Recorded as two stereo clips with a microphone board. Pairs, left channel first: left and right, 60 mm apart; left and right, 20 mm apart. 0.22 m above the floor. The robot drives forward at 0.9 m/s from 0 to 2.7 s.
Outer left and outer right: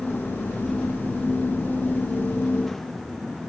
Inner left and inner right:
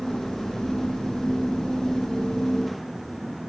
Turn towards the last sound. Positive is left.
No sound to turn to.